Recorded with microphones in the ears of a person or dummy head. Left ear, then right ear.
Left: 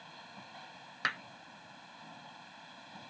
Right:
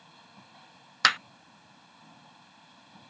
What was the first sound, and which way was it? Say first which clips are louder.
A machine running: left 4 dB; 20° left (ahead or behind).